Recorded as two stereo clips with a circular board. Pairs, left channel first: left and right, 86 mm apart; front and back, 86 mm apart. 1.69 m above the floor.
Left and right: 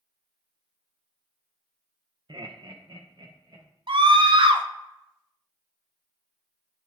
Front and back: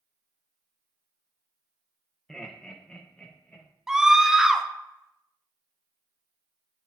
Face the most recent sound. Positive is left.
turn(degrees=-95)